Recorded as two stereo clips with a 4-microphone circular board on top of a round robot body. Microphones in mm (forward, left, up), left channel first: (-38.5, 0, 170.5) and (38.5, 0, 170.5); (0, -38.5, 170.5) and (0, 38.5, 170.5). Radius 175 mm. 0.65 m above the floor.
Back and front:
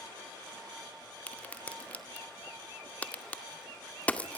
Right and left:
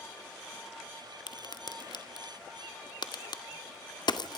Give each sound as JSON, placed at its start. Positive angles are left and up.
{"t": 1.3, "sound": "a crack", "azimuth_deg": -110, "distance_m": 2.0}